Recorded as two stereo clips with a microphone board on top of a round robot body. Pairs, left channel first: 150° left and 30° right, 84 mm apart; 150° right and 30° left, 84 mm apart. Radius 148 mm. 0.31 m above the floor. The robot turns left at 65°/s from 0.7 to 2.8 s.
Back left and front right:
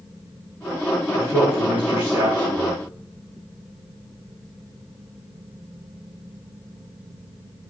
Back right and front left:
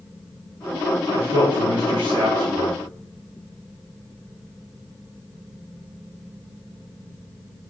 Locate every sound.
1.1 s a man speaking: 90° left, 4.5 m; by 2.8 s 20° right, 4.5 m